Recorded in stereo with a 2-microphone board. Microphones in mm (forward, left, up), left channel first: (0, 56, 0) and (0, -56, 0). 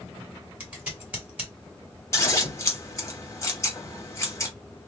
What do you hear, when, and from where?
0.6 s scissors: 15° right (ahead or behind), 1.9 m
2.1 s scissors: 25° left (ahead or behind), 1.0 m